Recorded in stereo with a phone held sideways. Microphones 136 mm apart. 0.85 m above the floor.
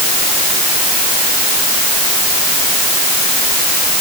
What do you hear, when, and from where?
Only background noise.